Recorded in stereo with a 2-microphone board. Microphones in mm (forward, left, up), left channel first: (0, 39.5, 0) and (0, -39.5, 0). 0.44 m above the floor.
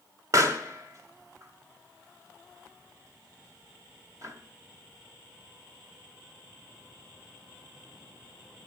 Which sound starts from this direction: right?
A pop, at 0.3 s.